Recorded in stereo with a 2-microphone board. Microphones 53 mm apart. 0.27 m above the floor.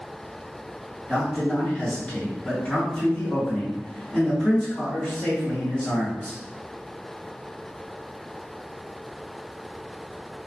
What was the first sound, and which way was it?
A man speaking, 20° left (ahead or behind).